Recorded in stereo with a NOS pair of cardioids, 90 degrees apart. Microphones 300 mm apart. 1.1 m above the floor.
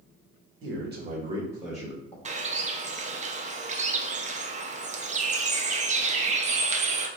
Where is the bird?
25° right, 0.7 m.